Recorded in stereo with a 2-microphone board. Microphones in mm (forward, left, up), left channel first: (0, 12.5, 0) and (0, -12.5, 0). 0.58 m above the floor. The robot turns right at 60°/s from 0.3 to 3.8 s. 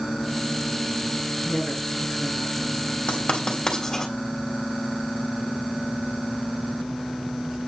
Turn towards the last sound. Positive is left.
turn(degrees=5)  # may be behind; listen again after turning